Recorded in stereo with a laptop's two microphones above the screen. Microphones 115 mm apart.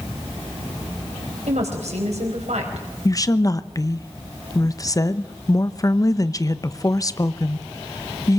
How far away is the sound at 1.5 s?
About 4.5 m.